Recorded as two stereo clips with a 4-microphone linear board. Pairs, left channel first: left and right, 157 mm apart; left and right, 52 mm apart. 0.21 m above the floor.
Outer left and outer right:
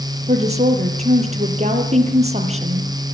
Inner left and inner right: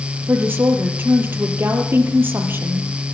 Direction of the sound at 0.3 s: 40° right (ahead or behind).